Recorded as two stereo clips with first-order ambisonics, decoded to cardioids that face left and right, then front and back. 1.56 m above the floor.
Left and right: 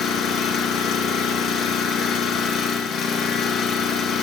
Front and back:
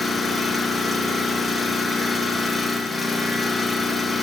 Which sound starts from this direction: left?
An engine running, at 0.0 s.